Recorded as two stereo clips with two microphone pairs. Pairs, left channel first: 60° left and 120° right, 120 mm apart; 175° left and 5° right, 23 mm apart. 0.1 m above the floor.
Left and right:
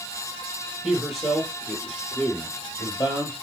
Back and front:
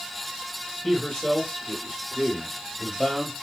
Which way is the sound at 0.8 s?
160° left.